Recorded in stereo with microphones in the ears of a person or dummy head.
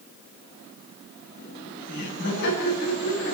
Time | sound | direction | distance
1.4 | laughter | 65° left (ahead or behind) | 10 m